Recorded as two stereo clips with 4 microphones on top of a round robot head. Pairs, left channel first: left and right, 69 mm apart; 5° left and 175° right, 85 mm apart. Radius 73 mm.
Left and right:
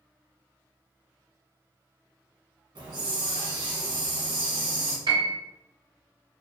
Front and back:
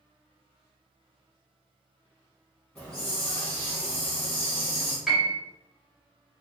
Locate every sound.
2.8 s a hiss: 75° right, 1.9 m
5.1 s a piano: 90° right, 1.3 m